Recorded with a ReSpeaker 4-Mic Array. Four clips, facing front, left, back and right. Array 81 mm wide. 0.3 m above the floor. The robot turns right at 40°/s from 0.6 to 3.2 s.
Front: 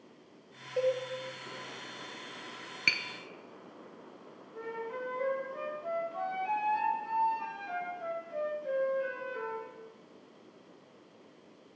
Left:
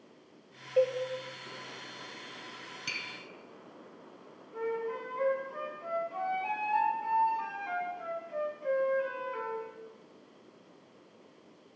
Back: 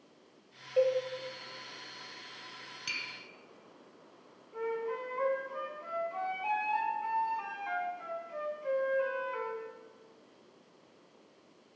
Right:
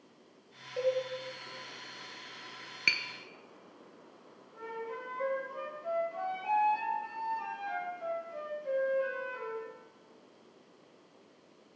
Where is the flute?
150° left, 3 m.